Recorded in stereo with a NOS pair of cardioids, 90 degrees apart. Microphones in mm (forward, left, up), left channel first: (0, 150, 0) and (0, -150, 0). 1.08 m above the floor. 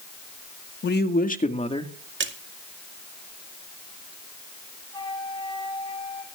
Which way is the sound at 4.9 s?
15° left.